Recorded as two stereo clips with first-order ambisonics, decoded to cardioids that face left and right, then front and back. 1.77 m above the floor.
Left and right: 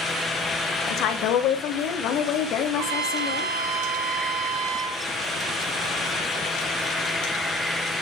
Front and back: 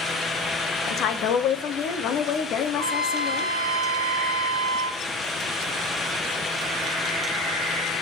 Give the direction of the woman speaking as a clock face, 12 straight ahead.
10 o'clock.